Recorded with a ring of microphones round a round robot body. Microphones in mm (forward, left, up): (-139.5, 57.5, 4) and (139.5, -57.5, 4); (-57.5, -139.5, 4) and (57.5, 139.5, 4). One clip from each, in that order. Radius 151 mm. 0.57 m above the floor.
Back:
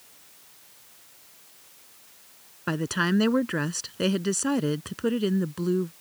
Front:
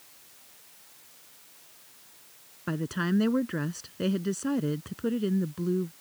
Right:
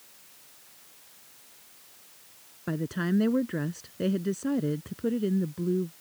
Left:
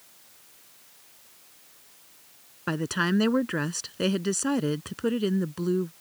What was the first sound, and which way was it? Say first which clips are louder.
A woman speaking: back 5 dB, left 5 dB; 100° left.